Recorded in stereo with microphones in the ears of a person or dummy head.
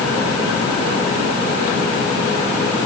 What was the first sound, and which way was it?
Only background noise.